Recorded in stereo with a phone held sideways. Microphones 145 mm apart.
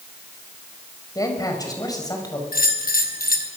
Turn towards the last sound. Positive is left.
turn(degrees=80)